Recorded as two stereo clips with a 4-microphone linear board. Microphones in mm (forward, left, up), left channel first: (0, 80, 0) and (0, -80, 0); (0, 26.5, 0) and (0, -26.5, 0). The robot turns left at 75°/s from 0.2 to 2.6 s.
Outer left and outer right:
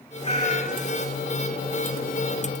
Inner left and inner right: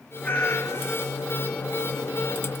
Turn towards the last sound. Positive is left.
turn(degrees=-35)